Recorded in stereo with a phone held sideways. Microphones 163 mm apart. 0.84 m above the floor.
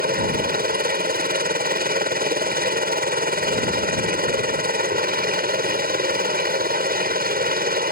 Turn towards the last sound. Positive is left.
turn(degrees=-65)  # may be behind; listen again after turning